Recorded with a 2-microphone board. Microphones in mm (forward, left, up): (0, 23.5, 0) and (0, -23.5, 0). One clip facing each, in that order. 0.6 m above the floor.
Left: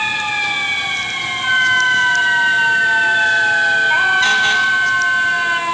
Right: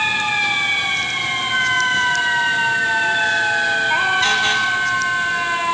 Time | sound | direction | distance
1.4 | a flute | 70° left (ahead or behind) | 1.5 m